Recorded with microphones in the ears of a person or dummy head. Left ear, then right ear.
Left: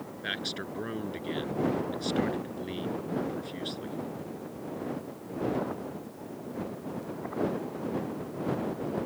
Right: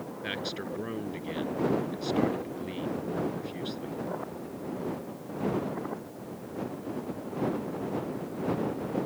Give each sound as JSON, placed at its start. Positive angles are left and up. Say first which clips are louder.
{"t": 0.2, "sound": "a man speaking", "louder": "left 1 dB", "side_deg": 5}